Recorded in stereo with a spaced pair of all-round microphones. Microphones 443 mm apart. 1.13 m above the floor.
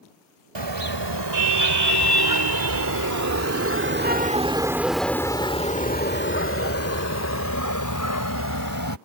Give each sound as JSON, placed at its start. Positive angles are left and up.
{"t": 0.6, "sound": "a car horn", "side_deg": -70}